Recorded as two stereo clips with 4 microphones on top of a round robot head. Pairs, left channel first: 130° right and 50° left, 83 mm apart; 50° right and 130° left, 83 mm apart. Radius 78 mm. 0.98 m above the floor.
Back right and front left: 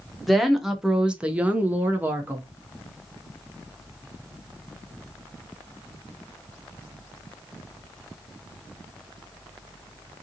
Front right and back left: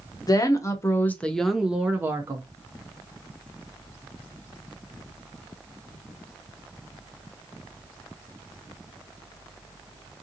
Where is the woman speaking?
40° right, 1.0 m; by 2.5 s 105° left, 1.0 m.